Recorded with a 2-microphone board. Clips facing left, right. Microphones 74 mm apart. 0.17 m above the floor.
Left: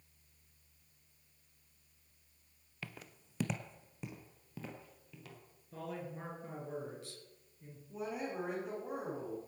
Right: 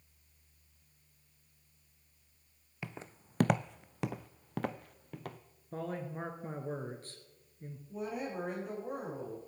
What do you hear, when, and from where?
2.8 s footsteps: 20° right (ahead or behind), 0.6 m; by 5.4 s 55° right (ahead or behind), 1.4 m
5.7 s a man speaking: 45° right (ahead or behind), 2 m
7.9 s a woman speaking: centre (ahead or behind), 8 m